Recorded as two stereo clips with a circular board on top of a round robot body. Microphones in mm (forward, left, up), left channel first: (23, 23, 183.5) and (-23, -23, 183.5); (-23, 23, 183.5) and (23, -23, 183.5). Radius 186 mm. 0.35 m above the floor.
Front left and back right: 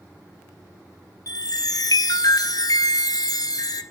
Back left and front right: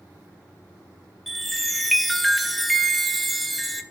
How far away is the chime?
About 2.5 m.